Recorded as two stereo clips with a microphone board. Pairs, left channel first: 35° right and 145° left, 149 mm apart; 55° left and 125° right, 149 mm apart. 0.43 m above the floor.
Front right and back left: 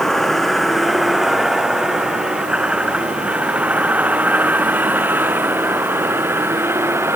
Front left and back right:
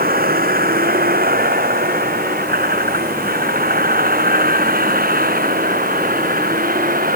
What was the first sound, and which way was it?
A vehicle, 120° right.